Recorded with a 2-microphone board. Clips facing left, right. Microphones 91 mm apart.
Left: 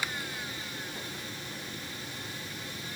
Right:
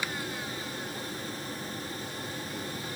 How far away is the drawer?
No drawer in this recording.